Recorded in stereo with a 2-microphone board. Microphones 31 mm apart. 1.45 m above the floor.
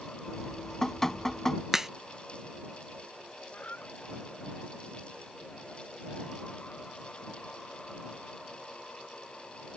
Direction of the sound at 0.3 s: 15° left (ahead or behind).